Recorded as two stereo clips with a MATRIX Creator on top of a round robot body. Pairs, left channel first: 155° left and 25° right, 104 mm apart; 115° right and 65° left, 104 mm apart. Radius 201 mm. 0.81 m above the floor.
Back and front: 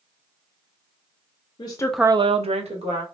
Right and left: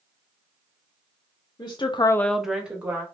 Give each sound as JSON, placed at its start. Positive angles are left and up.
{"t": 1.6, "sound": "a woman speaking", "azimuth_deg": -160, "distance_m": 0.8}